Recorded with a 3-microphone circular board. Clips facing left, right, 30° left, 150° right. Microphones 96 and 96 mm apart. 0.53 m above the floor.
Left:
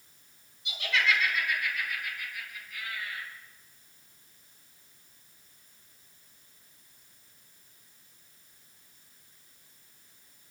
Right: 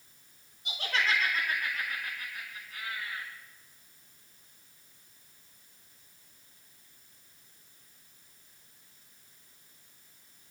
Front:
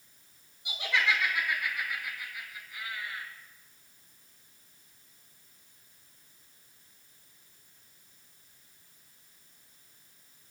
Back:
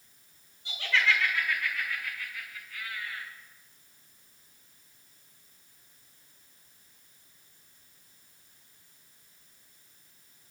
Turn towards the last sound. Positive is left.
turn(degrees=-40)